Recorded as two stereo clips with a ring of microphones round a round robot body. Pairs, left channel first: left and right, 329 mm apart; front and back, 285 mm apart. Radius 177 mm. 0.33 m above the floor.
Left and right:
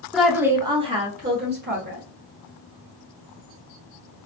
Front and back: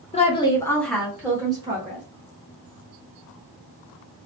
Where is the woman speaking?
Straight ahead, 1.0 m; by 2.0 s 125° right, 1.2 m.